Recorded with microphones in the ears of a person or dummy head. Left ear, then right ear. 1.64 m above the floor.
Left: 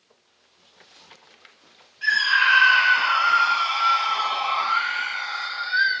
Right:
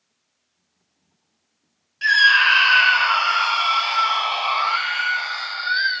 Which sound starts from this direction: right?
A scream, at 2.0 s.